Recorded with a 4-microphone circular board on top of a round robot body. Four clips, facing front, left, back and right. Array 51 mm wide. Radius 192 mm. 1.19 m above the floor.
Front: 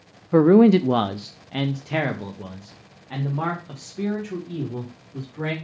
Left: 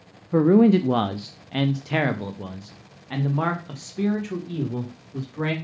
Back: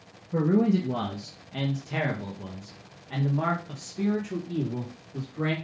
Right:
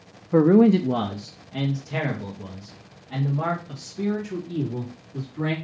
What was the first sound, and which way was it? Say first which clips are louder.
A man speaking: even, front 9 dB; 10° right.